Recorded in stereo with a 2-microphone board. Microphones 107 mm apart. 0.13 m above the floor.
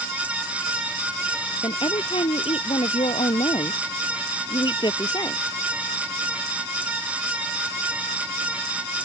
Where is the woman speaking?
55° left (ahead or behind); by 5.4 s 35° left (ahead or behind).